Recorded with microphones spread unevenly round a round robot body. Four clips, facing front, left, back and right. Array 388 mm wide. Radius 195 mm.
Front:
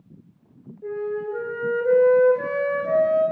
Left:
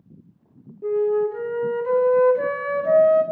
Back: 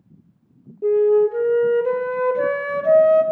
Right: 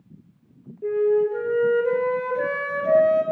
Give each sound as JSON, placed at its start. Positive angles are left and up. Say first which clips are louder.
{"t": 0.8, "sound": "a flute", "louder": "right 1 dB, back 12 dB", "azimuth_deg": 160, "distance_m": 1.6}